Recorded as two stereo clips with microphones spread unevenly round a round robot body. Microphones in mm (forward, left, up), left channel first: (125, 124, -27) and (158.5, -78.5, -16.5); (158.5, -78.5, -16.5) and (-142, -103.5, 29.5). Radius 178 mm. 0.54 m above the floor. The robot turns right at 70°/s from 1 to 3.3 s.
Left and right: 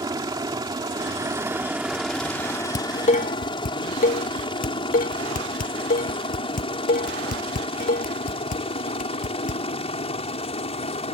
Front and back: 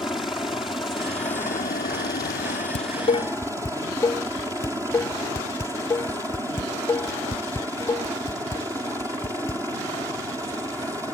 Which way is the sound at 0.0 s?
65° right.